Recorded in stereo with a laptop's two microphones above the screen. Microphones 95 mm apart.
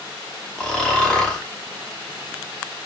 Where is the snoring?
10° left (ahead or behind), 0.8 m.